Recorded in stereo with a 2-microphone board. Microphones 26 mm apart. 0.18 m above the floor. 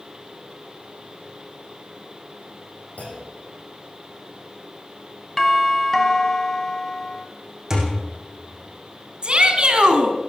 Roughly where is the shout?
Right.